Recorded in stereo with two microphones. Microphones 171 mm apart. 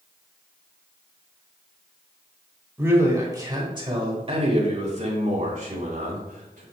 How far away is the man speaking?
About 2.5 m.